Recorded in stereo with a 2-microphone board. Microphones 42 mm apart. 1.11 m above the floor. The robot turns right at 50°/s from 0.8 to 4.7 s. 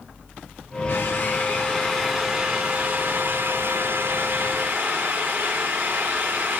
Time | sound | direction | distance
0.9 | a drill | 120° left | 6 m